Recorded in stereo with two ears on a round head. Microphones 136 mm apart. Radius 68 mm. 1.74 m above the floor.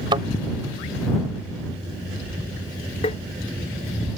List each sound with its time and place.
0.1 s a thud: 30° right (ahead or behind)
3.0 s tapping: 40° left (ahead or behind)